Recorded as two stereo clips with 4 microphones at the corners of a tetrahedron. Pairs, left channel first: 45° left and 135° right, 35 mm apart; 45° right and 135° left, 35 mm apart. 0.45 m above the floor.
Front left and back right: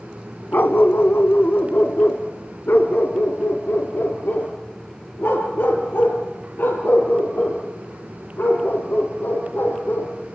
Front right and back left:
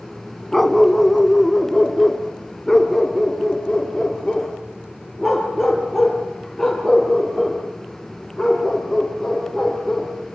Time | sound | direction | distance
0.5 | a dog barking | 40° left | 1.5 m